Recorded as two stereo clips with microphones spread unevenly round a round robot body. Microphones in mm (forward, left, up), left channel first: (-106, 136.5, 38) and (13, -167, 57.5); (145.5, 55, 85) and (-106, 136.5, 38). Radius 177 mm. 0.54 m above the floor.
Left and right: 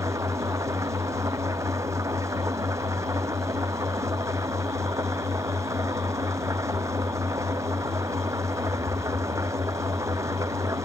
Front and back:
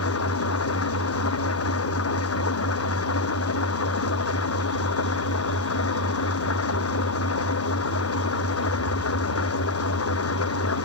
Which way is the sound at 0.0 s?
15° left.